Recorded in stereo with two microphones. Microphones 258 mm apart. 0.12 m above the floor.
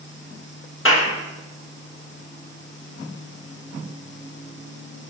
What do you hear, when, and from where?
0.8 s a clap: 50° left (ahead or behind), 3 m